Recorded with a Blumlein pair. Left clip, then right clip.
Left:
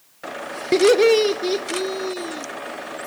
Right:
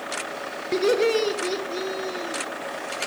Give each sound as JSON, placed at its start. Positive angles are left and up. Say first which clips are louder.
{"t": 0.7, "sound": "laughter", "louder": "left 7 dB", "azimuth_deg": 70, "distance_m": 0.8}